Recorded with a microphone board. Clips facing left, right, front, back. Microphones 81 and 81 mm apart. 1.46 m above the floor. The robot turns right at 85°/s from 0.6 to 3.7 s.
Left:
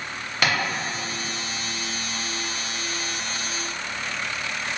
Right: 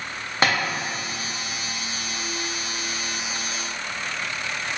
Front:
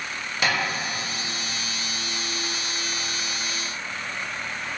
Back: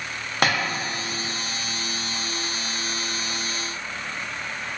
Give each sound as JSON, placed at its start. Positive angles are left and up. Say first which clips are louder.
{"t": 0.4, "sound": "tapping", "louder": "right 3 dB, back 3 dB", "azimuth_deg": -145, "distance_m": 0.6}